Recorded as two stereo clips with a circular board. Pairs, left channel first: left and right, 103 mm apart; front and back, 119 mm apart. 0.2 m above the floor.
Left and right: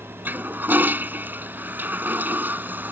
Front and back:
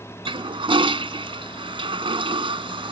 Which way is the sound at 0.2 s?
155° right.